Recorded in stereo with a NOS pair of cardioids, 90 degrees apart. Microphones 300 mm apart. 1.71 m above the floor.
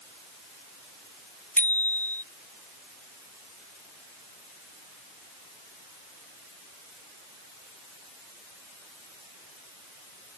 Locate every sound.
1.6 s a bicycle bell: 5° left